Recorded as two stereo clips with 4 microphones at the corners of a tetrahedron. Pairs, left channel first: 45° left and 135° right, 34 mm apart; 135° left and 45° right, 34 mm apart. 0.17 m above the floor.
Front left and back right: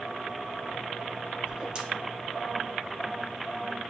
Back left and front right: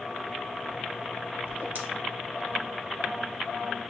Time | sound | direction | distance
1.5 | a whoosh | 75° right | 1.2 m